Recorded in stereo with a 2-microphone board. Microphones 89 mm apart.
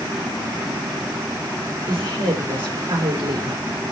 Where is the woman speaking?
85° right, 3.5 m.